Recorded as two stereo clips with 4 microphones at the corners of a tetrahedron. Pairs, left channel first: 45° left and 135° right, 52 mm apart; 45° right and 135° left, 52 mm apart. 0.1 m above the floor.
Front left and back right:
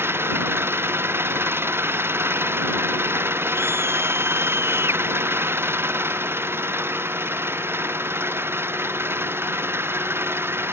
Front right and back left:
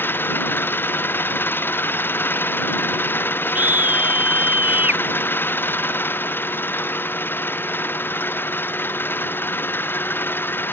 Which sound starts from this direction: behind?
A scream, at 3.5 s.